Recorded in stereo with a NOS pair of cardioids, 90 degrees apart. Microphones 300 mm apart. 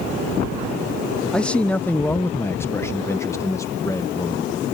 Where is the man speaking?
5° left; by 4.7 s 10° left.